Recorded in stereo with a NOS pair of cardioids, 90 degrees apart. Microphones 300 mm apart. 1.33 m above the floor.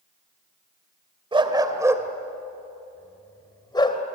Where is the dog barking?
20° right, 2.5 m; by 4.0 s 15° left, 2.5 m.